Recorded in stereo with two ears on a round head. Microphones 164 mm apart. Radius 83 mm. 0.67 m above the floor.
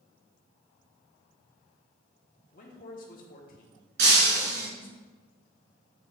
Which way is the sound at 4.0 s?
60° right (ahead or behind).